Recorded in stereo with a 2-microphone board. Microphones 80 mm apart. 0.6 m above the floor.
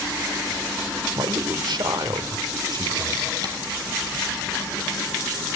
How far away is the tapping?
About 3 m.